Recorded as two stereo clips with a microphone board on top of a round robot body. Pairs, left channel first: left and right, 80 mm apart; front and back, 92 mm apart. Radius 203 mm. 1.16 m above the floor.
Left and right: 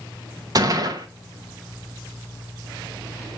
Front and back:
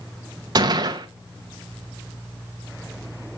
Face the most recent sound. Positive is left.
turn(degrees=-135)